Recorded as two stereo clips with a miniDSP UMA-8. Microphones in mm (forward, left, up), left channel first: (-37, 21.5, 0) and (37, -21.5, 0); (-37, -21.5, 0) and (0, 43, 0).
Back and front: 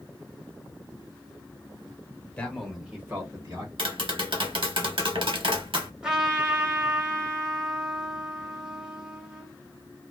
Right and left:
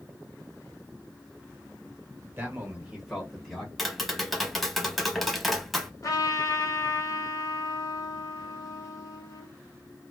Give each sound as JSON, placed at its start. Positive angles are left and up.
{"t": 2.4, "sound": "a man speaking", "azimuth_deg": 90, "distance_m": 1.2}
{"t": 3.8, "sound": "tapping", "azimuth_deg": -30, "distance_m": 0.7}
{"t": 6.0, "sound": "a trumpet", "azimuth_deg": -110, "distance_m": 1.1}